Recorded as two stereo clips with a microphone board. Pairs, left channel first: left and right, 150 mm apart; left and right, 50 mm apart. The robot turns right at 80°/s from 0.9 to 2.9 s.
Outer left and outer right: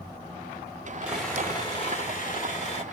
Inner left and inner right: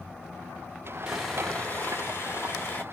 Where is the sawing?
10° right, 2 m; by 2.8 s 130° left, 2 m.